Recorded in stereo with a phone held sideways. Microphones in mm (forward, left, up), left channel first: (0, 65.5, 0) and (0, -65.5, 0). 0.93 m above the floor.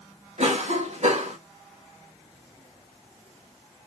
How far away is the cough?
About 1.1 m.